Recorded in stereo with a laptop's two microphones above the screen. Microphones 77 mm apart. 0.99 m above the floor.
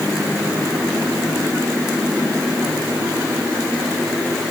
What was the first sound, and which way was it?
Only background noise.